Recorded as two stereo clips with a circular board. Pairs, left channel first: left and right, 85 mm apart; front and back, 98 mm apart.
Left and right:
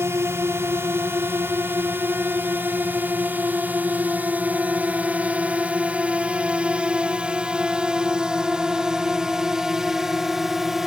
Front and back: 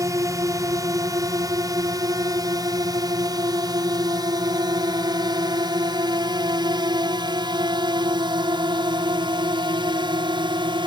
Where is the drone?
135° right; by 10.9 s 175° right.